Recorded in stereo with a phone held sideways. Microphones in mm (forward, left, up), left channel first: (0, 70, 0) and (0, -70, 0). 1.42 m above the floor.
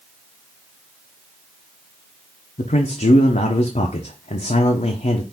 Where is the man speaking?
60° left (ahead or behind), 0.6 m.